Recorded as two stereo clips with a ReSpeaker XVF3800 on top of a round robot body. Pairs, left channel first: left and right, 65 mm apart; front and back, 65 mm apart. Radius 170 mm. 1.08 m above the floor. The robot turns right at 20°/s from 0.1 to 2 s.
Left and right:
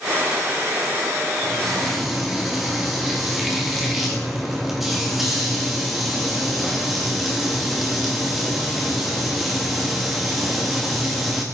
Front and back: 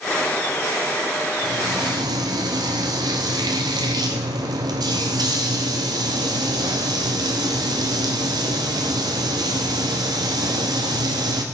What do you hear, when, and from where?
1.4 s frying: 175° left, 0.9 m; by 11.4 s 175° right, 0.9 m